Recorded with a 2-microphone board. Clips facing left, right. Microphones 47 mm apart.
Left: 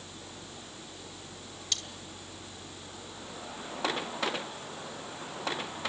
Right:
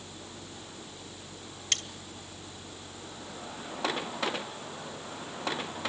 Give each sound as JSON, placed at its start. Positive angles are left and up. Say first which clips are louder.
{"t": 1.7, "sound": "cutlery clinking", "louder": "right 4 dB", "side_deg": -50, "distance_m": 1.9}